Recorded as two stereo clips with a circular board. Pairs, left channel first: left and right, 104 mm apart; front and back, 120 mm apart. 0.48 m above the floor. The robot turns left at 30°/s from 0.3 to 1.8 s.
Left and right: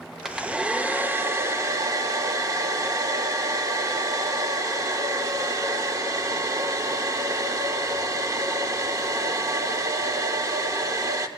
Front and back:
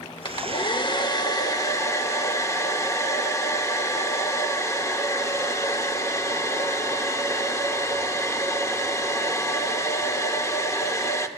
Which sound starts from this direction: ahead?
A hair dryer, at 0.2 s.